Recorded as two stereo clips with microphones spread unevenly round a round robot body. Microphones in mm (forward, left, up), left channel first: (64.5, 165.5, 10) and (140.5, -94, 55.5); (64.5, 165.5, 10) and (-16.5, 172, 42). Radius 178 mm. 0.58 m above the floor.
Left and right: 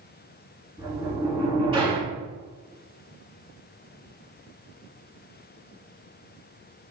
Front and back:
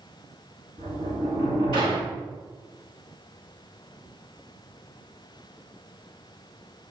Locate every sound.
0.8 s a sliding door: 150° right, 4 m